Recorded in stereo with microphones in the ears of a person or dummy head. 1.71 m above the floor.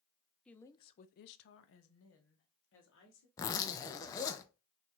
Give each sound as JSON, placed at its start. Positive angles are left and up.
{"t": 0.5, "sound": "a woman speaking", "side_deg": 5, "distance_m": 0.6}
{"t": 3.4, "sound": "a zipper", "side_deg": 20, "distance_m": 0.5}